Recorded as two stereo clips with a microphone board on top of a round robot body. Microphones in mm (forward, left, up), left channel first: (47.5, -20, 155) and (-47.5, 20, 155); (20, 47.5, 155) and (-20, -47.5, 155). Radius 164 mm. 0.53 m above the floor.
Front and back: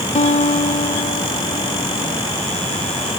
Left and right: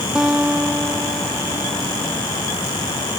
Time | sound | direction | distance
0.1 | a guitar | 30° right | ?